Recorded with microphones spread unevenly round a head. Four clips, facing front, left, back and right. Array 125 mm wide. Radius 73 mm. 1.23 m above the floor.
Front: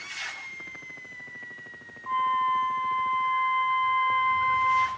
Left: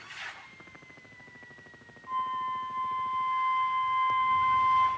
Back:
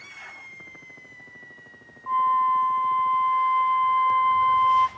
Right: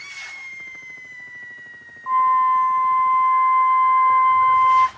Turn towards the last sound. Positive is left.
turn(degrees=-100)